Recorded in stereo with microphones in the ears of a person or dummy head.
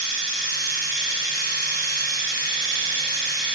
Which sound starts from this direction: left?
A machine running, at 0.0 s.